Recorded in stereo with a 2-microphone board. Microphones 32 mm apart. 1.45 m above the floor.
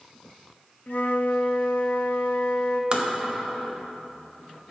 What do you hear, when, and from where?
0.9 s a flute: 70° left (ahead or behind), 0.6 m
2.9 s tapping: 35° right (ahead or behind), 0.9 m